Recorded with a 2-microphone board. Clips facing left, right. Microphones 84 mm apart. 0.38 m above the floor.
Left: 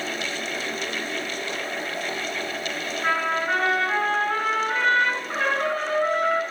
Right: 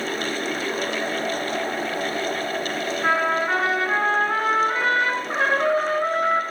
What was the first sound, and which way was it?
A trumpet, 10° right (ahead or behind).